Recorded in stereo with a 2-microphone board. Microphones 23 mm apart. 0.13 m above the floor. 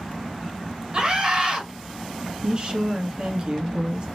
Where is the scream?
30° right (ahead or behind), 2.0 m.